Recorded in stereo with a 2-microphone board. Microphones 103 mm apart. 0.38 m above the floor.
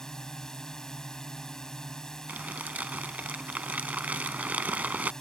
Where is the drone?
5° left (ahead or behind).